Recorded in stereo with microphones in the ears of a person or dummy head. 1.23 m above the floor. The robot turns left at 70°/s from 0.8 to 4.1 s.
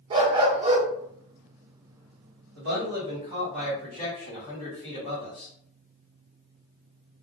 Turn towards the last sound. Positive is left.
turn(degrees=155)